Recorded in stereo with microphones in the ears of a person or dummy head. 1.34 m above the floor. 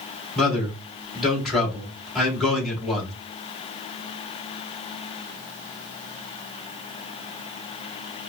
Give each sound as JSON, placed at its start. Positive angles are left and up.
{"t": 0.3, "sound": "a man speaking", "side_deg": 0, "distance_m": 2.0}